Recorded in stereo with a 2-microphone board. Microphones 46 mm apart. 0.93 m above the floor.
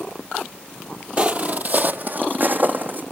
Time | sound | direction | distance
1.2 | footsteps | 30° right (ahead or behind) | 1.0 m